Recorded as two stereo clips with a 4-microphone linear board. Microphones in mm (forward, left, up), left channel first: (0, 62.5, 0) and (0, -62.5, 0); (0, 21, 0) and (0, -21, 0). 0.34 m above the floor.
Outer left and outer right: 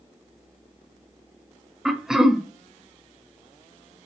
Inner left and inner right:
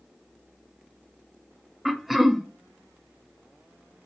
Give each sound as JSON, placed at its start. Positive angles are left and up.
{"t": 1.9, "sound": "throat clearing", "side_deg": -5, "distance_m": 0.5}